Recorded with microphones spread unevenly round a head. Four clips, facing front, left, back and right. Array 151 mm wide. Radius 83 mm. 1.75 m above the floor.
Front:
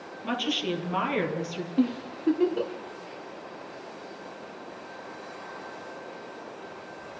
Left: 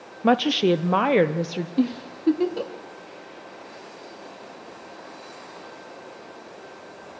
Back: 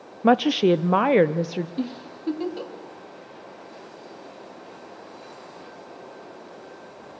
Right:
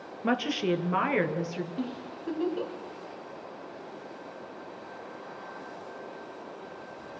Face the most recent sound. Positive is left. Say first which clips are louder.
# left 11 dB, front 4 dB
turn(degrees=75)